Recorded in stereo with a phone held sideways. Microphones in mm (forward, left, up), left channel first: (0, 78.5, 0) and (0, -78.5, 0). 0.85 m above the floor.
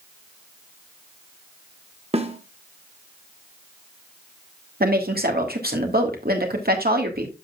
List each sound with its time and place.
2.1 s a snare drum: 40° right (ahead or behind), 1.1 m
4.8 s a woman speaking: 75° right (ahead or behind), 1.7 m